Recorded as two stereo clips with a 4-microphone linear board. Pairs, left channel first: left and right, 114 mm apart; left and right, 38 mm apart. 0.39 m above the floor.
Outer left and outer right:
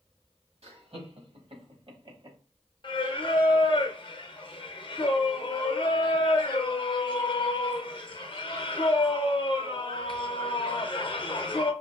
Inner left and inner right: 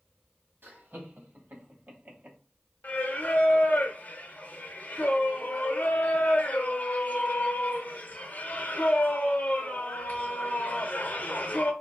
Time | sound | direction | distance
0.6 | laughter | 65° right (ahead or behind) | 2 m
2.8 | singing | 45° left (ahead or behind) | 0.6 m